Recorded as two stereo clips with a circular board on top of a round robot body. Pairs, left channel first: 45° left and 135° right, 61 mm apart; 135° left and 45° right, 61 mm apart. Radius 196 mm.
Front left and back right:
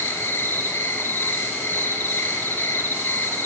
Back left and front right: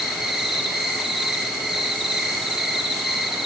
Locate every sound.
0.0 s an insect: 40° left, 1.2 m